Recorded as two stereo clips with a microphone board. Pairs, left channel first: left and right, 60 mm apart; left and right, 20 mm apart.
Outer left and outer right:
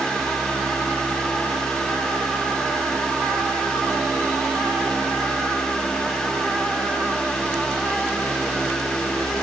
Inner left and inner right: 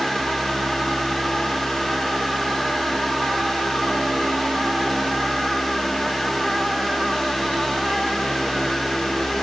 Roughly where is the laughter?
No laughter in this recording.